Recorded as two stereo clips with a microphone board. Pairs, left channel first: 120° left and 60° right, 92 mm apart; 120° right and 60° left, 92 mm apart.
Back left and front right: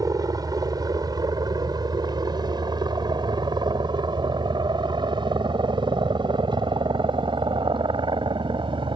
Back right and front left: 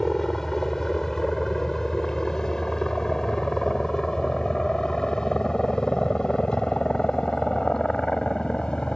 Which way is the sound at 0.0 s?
35° right.